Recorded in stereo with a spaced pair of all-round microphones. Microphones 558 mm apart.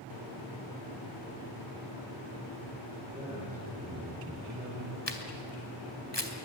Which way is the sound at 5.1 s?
50° left (ahead or behind).